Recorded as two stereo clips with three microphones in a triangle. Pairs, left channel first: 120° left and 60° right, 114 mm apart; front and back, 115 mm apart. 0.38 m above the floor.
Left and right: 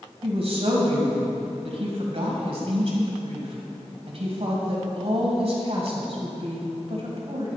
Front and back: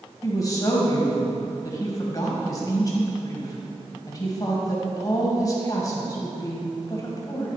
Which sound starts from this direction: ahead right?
A woman speaking, at 0.2 s.